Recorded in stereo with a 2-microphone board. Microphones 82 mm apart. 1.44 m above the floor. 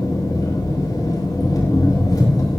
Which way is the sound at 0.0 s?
50° left (ahead or behind).